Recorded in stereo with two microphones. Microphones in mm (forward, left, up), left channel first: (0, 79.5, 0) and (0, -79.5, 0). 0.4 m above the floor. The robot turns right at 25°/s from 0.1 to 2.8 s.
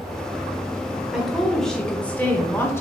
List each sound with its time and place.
1.1 s a woman speaking: centre (ahead or behind), 0.8 m; by 2.8 s 15° left (ahead or behind), 0.8 m